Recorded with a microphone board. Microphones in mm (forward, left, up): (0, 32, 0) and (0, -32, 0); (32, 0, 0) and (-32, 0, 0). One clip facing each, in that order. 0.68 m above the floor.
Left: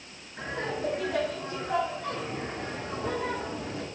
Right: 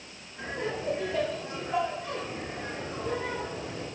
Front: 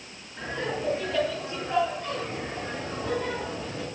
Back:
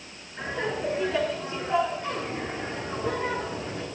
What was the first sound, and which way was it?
Laughter, 95° left.